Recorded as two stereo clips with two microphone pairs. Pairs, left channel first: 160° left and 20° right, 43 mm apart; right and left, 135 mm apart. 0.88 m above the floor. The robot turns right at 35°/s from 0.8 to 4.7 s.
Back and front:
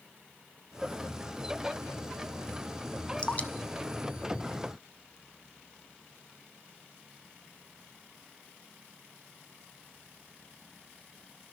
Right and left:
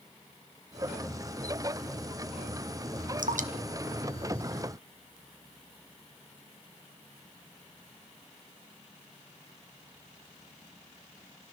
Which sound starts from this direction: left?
Dripping, at 3.2 s.